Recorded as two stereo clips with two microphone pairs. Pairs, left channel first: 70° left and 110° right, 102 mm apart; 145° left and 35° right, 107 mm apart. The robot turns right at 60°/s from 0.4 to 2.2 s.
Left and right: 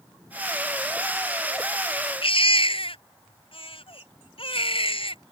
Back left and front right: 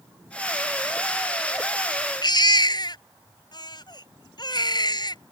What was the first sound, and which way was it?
A baby crying, 100° left.